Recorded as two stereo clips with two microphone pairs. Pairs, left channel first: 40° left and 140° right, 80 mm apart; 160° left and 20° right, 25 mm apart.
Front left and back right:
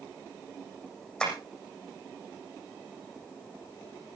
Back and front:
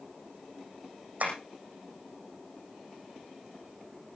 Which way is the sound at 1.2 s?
45° right.